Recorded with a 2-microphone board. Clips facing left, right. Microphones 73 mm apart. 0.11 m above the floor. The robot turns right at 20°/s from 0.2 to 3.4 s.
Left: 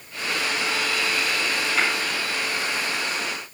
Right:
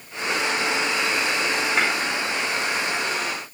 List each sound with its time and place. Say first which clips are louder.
1.8 s tapping: right 1 dB; 55° right (ahead or behind), 4.5 m; by 1.9 s 50° right (ahead or behind), 4.5 m